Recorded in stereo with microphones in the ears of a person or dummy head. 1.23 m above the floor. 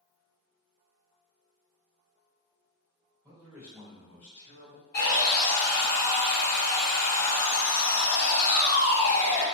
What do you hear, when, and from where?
3.2 s a man speaking: 15° right (ahead or behind), 1.5 m; by 4.8 s 45° left (ahead or behind), 0.7 m
4.9 s sawing: 45° left (ahead or behind), 1.1 m